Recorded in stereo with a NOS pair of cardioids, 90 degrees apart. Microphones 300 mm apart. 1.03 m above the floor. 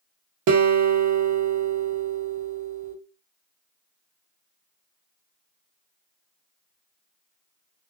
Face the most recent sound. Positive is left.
turn(degrees=-65)